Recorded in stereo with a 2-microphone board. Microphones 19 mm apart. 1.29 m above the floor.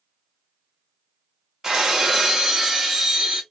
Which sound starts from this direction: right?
Breaking glass, at 1.6 s.